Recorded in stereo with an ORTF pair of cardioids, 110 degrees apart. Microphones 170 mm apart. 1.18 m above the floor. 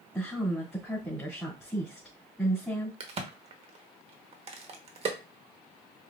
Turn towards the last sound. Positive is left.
turn(degrees=-40)